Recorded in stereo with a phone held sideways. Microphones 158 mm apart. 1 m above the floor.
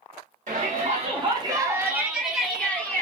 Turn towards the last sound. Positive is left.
turn(degrees=15)  # may be behind; listen again after turning